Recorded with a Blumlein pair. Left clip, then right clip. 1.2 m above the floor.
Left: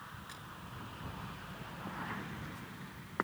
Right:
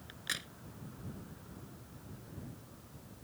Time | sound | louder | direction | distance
0.1 | a crack | right 8 dB | 35° right | ?